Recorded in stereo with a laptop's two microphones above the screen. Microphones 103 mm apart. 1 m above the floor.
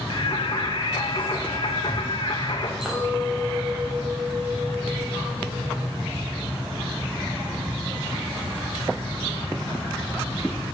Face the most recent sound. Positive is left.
turn(degrees=-5)  # may be behind; listen again after turning